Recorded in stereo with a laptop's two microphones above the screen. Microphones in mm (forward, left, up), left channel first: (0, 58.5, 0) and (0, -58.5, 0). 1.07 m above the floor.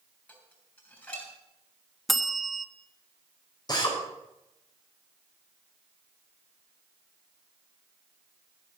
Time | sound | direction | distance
0.3 | dishes clattering | 15° left (ahead or behind) | 7 m
2.1 | a bell | centre (ahead or behind) | 1.2 m
3.7 | a drill | 35° left (ahead or behind) | 5 m